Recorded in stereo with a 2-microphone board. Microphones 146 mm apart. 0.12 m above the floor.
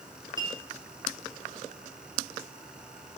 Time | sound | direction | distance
0.4 | a clink | 30° right (ahead or behind) | 1.5 m